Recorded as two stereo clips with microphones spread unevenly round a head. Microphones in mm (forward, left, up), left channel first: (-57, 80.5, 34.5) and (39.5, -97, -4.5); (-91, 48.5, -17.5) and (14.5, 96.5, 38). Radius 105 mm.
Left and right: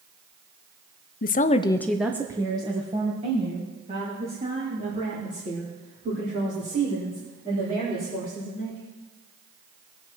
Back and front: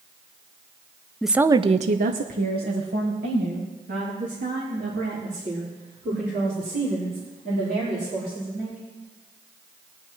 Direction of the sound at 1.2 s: 155° left.